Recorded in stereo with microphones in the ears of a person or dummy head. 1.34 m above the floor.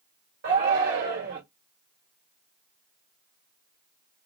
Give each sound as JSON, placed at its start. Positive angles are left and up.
{"t": 0.4, "sound": "a shout", "side_deg": -45, "distance_m": 1.2}